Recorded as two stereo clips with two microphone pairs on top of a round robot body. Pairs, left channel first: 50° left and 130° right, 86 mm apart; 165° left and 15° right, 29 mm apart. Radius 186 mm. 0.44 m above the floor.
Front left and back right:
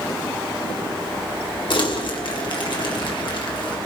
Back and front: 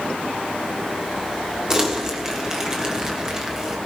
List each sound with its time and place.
1.7 s crumpling: 40° left, 2.5 m